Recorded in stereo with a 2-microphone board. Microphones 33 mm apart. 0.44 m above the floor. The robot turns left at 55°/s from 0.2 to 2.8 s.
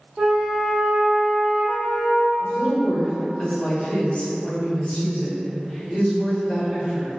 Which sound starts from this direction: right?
A flute, at 0.2 s.